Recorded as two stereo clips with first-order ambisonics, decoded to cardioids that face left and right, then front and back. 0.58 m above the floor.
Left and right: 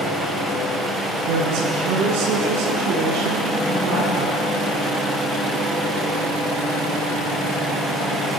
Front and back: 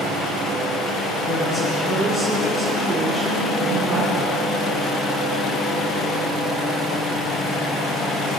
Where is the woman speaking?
75° right, 7 m; by 4.5 s 70° right, 9 m.